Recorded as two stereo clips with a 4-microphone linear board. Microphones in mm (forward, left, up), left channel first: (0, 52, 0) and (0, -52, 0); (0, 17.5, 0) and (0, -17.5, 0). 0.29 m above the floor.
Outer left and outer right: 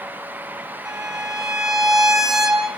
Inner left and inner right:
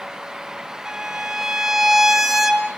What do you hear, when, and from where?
0.8 s a violin: 5° right (ahead or behind), 2.5 m